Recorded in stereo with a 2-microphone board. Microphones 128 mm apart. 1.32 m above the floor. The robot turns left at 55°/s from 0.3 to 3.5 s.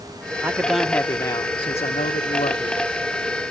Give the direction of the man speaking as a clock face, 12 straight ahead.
5 o'clock.